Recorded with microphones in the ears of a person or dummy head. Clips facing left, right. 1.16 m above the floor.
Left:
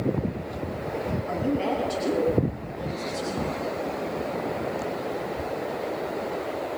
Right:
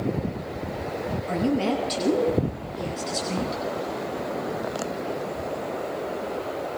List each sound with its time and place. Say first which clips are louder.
1.3 s a woman speaking: right 3 dB; 20° right (ahead or behind), 8 m; by 3.6 s 35° right (ahead or behind), 10 m